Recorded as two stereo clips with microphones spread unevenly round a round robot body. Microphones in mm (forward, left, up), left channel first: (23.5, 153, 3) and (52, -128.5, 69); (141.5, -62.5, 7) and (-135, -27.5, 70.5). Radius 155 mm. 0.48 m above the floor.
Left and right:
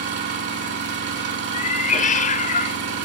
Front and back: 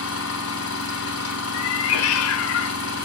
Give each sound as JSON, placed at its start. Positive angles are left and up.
{"t": 0.0, "sound": "an engine running", "azimuth_deg": -30, "distance_m": 2.5}
{"t": 1.5, "sound": "a cat meowing", "azimuth_deg": 30, "distance_m": 0.6}